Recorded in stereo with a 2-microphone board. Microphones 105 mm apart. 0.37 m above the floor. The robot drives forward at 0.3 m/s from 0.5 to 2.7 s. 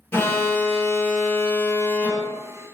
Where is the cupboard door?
I don't hear a cupboard door.